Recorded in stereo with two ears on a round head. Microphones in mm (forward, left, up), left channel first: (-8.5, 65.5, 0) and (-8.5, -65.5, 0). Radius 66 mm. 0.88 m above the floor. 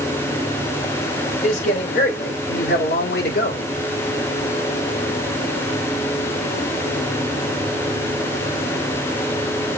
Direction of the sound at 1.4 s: 50° left (ahead or behind).